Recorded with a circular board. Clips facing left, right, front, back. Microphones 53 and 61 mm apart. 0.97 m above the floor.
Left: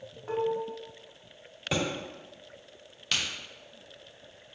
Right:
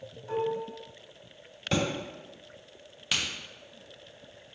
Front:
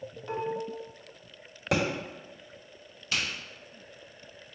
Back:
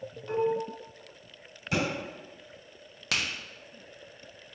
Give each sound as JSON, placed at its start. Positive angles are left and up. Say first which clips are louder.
{"t": 0.3, "sound": "dishes clattering", "louder": "left 1 dB, back 5 dB", "azimuth_deg": 75, "distance_m": 1.2}
{"t": 1.7, "sound": "a thud", "louder": "right 2 dB, front 2 dB", "azimuth_deg": 5, "distance_m": 1.2}
{"t": 3.1, "sound": "a crack", "louder": "even, back 1 dB", "azimuth_deg": -175, "distance_m": 1.0}